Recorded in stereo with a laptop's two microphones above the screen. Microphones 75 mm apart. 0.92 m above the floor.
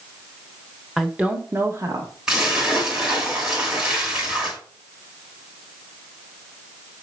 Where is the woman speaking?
5° right (ahead or behind), 1.0 m; by 2.1 s 50° right (ahead or behind), 1.4 m.